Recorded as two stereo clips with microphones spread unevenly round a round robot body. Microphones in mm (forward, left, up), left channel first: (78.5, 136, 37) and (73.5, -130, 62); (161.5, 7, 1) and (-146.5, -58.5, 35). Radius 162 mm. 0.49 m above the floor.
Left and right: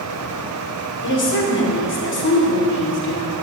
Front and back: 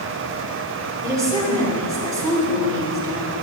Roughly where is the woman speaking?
Left.